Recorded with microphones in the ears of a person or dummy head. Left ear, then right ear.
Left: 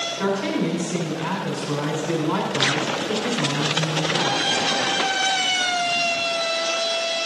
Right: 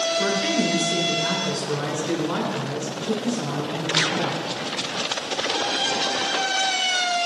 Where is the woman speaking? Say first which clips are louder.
Right 2 dB; 30° left (ahead or behind), 4.5 m.